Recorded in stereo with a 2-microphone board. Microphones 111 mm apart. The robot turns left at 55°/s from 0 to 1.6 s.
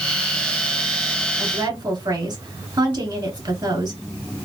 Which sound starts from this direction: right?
A woman speaking, at 1.4 s.